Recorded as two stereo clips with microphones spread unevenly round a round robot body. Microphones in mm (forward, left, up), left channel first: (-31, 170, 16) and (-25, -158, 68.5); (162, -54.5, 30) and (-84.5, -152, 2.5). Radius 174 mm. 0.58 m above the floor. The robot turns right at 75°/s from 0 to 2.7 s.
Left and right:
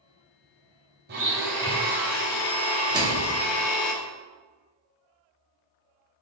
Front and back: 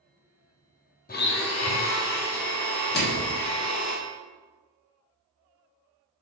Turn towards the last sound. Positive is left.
turn(degrees=-5)